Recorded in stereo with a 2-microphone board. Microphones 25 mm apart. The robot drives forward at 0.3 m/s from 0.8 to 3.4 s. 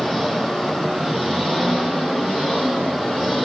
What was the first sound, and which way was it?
An engine running, 10° right (ahead or behind).